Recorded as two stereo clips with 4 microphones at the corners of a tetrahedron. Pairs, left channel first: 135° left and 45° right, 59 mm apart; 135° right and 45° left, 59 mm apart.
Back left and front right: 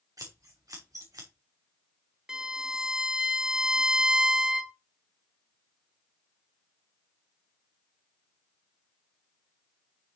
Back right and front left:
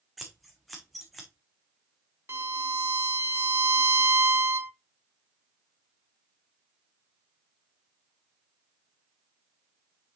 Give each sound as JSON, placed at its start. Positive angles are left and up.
{"t": 0.2, "sound": "scissors", "azimuth_deg": -45, "distance_m": 2.5}
{"t": 2.3, "sound": "a violin", "azimuth_deg": 30, "distance_m": 0.5}